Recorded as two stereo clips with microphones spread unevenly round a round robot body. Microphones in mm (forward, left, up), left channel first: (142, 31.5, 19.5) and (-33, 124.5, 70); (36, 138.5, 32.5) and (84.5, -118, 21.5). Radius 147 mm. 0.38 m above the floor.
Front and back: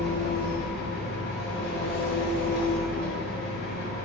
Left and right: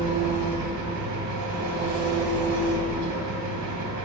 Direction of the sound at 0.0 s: 60° right.